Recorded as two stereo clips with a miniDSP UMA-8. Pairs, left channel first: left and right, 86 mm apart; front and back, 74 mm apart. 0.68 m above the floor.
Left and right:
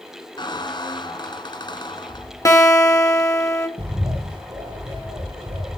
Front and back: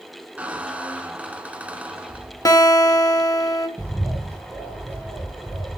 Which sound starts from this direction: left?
A squeak, at 0.4 s.